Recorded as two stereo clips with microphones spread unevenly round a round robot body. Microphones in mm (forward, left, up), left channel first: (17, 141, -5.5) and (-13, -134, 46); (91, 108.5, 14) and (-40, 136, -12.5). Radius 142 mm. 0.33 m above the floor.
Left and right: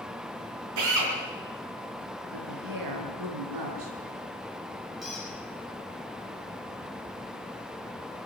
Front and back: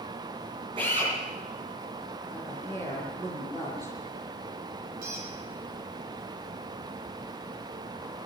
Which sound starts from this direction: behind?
A squeak, at 5.0 s.